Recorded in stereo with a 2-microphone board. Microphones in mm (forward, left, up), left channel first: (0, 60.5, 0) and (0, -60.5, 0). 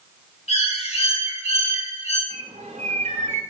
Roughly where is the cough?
I don't hear a cough.